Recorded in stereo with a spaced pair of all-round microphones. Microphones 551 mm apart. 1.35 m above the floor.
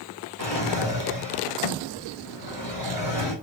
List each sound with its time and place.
0.4 s a drawer: 45° left (ahead or behind), 2 m